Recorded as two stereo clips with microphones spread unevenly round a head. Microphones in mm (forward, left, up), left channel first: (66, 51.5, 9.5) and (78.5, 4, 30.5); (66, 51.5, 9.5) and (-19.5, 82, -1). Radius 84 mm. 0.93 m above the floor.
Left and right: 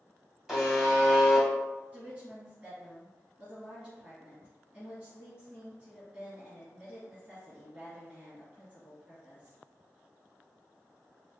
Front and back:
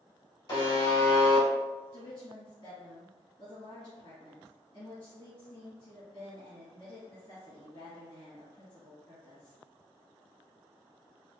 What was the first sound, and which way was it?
A buzzer, 10° right.